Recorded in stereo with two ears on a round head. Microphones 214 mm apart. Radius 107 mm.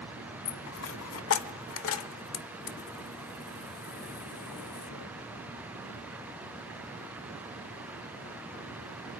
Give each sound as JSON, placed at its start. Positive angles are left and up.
{"t": 0.5, "sound": "a dropped coin", "side_deg": 65, "distance_m": 1.0}